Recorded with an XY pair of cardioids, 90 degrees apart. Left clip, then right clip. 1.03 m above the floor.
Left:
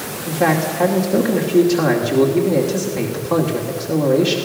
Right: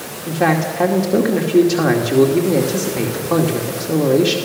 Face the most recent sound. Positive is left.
turn(degrees=-20)